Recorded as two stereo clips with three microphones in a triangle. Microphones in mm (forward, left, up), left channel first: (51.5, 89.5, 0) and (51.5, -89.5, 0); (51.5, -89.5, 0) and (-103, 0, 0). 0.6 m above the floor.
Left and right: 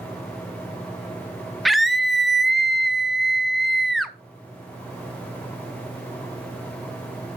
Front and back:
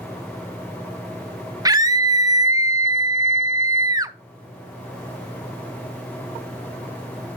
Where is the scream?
Straight behind, 0.6 m.